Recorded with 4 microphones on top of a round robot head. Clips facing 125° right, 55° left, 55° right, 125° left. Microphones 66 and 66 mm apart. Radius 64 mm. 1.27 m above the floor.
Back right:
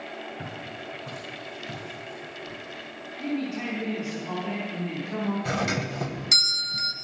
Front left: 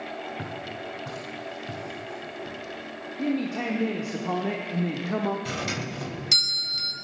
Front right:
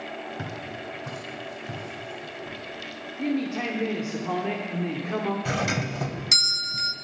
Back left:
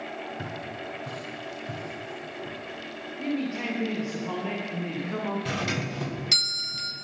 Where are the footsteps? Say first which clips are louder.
Front left 2 dB, front right 1 dB; 20° left, 2.5 m; by 2.6 s 90° left, 1.7 m.